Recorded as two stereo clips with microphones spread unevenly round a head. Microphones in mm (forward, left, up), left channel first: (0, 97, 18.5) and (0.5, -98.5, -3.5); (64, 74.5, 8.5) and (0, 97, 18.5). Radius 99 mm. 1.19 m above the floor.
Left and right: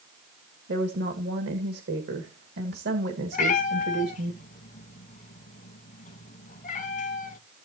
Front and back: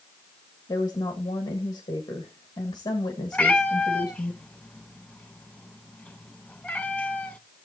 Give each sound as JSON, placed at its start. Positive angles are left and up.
{"t": 0.7, "sound": "a woman speaking", "azimuth_deg": -55, "distance_m": 1.6}
{"t": 3.3, "sound": "a cat meowing", "azimuth_deg": 55, "distance_m": 1.5}